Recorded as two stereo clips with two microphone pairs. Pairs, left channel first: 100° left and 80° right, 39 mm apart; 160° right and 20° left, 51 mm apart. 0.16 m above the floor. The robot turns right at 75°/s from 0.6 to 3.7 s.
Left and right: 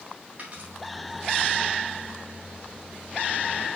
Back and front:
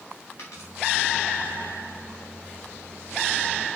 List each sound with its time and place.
0.4 s a dropped coin: 135° right, 3.5 m; by 0.7 s 125° right, 3.5 m